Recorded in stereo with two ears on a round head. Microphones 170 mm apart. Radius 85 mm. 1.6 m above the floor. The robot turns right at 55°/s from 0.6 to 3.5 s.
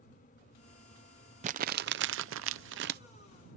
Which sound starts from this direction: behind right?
Crumpling, at 1.4 s.